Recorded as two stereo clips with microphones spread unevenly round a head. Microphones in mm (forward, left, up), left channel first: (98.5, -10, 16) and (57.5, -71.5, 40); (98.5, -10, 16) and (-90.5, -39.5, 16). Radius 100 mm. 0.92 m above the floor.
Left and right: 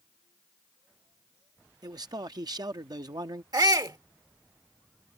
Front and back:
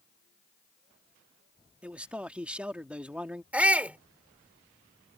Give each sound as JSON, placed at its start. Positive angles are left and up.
{"t": 1.8, "sound": "a man speaking", "azimuth_deg": -85}
{"t": 3.5, "sound": "a shout", "azimuth_deg": -90}